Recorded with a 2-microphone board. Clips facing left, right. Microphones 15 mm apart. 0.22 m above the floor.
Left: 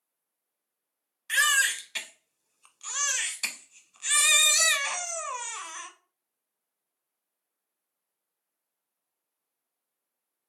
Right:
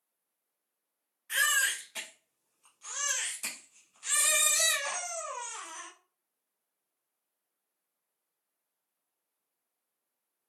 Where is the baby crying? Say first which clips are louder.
Left 4 dB; 60° left (ahead or behind), 0.6 m.